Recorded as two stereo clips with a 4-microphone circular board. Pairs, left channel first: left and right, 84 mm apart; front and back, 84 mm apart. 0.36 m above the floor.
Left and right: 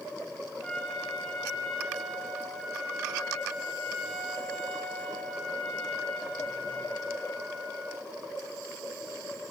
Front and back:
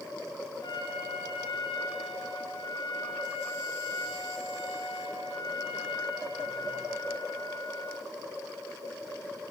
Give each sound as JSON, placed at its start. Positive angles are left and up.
{"t": 0.6, "sound": "a trumpet", "azimuth_deg": 5, "distance_m": 4.5}